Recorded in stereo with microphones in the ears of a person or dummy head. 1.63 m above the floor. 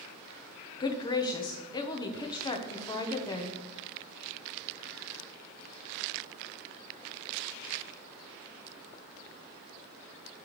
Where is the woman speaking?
25° left (ahead or behind), 1.1 m.